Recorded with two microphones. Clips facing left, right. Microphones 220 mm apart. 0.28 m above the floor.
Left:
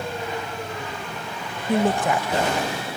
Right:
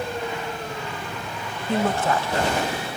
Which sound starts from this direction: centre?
A woman speaking, at 1.7 s.